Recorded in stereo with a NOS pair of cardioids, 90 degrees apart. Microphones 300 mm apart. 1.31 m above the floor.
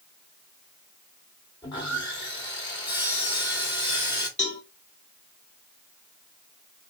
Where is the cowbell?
25° left, 1.8 m.